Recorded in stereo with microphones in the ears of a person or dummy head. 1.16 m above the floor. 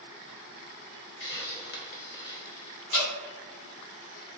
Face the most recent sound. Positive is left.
turn(degrees=75)  # may be behind; listen again after turning